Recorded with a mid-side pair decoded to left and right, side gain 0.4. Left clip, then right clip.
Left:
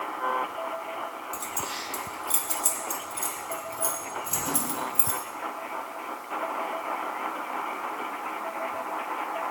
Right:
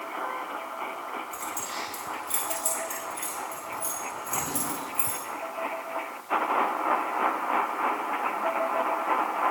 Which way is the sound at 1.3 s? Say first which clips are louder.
Even; 30° left.